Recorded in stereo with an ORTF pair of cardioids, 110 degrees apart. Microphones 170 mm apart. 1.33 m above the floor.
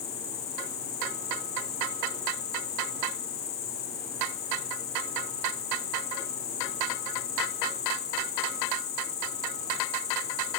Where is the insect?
70° left, 1.6 m.